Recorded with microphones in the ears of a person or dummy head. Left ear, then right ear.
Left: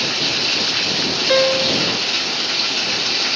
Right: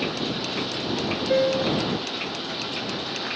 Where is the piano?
50° left (ahead or behind).